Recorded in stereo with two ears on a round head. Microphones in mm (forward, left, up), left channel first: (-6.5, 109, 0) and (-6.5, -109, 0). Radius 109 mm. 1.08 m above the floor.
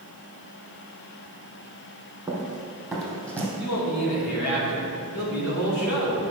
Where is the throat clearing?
I don't hear throat clearing.